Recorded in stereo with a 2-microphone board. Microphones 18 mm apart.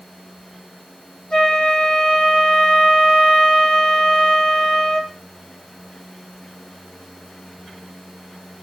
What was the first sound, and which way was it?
A flute, 50° left (ahead or behind).